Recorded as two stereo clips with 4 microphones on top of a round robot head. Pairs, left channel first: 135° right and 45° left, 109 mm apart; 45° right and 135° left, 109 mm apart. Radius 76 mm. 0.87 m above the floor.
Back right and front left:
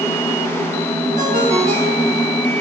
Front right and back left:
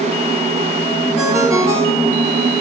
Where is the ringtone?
70° left, 10 m.